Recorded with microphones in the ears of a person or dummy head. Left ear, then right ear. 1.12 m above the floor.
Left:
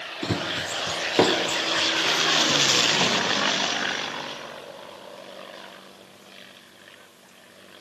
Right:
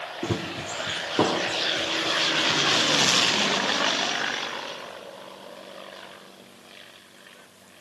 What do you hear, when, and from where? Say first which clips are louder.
0.2 s running footsteps: left 4 dB; 15° left (ahead or behind), 1.1 m; by 3.2 s 35° left (ahead or behind), 2.5 m